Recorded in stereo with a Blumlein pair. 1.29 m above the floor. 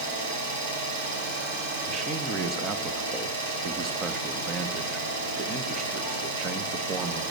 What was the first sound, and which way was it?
An engine running, 60° right.